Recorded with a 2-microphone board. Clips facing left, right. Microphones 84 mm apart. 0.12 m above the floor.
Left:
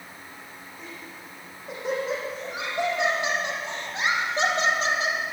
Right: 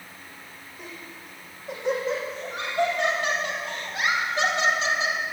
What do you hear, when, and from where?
0.8 s laughter: 5° right (ahead or behind), 5.5 m; by 5.2 s 50° left (ahead or behind), 3 m